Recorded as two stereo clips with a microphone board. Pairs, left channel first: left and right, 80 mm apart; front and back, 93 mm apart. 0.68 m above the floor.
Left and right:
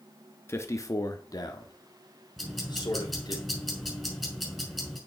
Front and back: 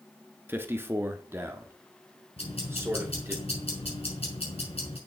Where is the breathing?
No breathing in this recording.